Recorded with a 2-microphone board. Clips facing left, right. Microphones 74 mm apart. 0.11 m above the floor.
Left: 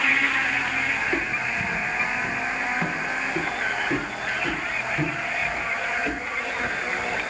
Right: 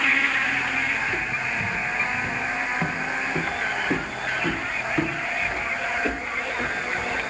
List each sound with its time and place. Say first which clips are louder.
1.0 s footsteps: left 1 dB; 45° left (ahead or behind), 0.9 m; by 7.2 s 50° right (ahead or behind), 3 m